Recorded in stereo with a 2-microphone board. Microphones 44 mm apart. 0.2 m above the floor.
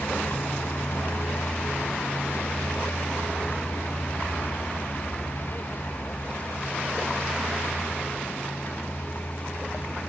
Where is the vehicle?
60° left (ahead or behind); by 10.1 s 40° left (ahead or behind).